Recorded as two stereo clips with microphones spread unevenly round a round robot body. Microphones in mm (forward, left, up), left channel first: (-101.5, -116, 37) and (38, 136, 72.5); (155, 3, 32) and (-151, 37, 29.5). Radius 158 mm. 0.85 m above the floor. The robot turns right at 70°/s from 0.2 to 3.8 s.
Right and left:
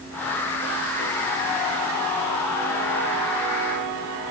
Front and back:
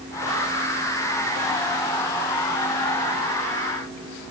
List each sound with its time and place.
Only background noise.